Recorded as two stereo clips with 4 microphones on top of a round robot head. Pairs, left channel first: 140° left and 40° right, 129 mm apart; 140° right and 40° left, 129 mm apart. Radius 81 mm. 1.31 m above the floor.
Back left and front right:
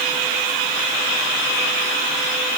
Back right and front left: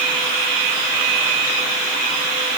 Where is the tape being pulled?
I don't hear tape being pulled.